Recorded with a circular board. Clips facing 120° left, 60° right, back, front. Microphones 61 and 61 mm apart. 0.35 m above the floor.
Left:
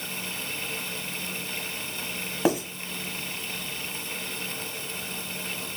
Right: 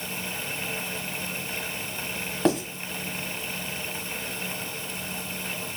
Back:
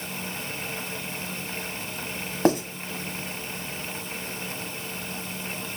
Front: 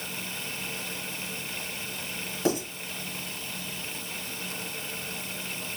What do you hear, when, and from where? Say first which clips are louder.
2.5 s writing: right 1 dB, back 6 dB; 155° right, 1.3 m